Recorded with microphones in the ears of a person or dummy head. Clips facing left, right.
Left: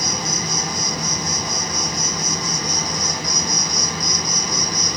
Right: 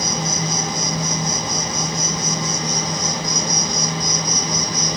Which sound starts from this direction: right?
An insect, at 0.0 s.